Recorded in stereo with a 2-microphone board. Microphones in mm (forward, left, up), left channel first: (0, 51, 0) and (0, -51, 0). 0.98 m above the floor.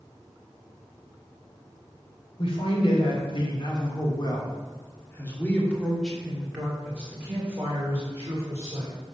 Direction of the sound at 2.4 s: 70° left (ahead or behind).